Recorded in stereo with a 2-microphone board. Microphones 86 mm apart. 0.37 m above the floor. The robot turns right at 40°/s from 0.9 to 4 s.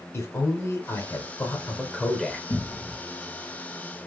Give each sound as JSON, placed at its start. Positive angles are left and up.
{"t": 0.1, "sound": "a man speaking", "azimuth_deg": 110, "distance_m": 0.9}
{"t": 2.5, "sound": "a cupboard door", "side_deg": 45, "distance_m": 0.6}